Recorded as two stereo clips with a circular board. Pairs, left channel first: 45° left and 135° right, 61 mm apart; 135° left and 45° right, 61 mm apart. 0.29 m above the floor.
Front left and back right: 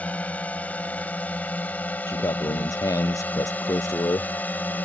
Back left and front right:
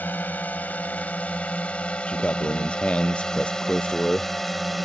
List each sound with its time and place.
0.0 s a drone: 95° left; by 4.8 s 45° left
2.1 s a man speaking: 65° left